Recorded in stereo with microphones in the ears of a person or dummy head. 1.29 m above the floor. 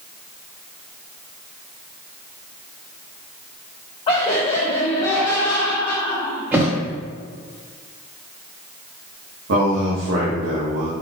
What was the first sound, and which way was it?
Laughter, 30° left (ahead or behind).